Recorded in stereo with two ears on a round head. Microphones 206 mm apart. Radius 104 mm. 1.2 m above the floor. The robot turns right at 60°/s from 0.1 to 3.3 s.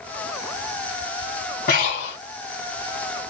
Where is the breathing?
50° left, 1.6 m; by 2.2 s 80° left, 1.6 m.